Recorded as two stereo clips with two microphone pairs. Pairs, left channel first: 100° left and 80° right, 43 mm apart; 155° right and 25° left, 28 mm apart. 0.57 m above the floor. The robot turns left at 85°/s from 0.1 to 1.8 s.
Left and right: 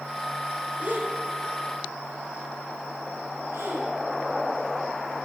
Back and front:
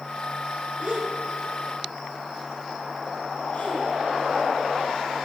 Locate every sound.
0.8 s a gasp: 20° right, 4 m; by 3.9 s 105° right, 4 m